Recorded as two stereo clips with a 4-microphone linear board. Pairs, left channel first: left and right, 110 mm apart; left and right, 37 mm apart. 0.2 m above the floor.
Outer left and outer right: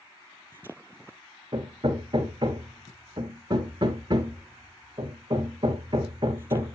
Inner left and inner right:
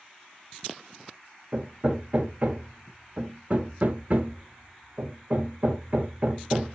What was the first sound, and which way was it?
Hammering, 45° right (ahead or behind).